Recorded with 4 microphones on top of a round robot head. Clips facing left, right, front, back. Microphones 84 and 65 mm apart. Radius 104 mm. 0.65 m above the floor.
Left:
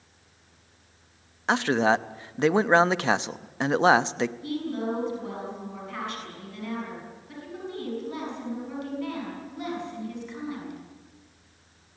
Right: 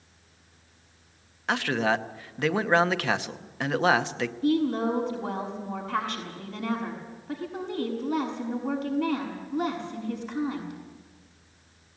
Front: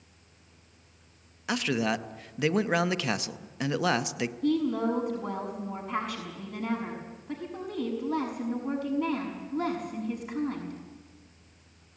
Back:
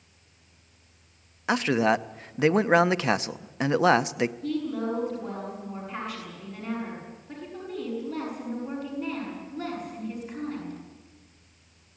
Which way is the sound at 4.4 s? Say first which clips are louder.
Right 6 dB, front 3 dB; 40° right.